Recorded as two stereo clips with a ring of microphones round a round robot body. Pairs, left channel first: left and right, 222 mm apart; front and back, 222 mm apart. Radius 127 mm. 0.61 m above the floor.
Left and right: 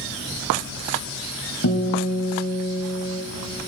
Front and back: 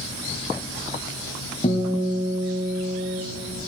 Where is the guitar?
70° left, 2 m.